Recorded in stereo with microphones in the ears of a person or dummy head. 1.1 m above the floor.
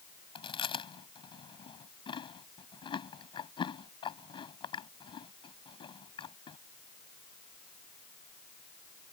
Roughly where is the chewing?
Left.